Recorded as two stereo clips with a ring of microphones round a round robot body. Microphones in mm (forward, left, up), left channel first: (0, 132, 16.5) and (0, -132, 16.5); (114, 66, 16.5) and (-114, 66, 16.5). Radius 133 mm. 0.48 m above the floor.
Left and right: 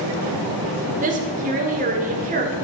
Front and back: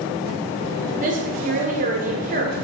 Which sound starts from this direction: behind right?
A woman speaking, at 1.0 s.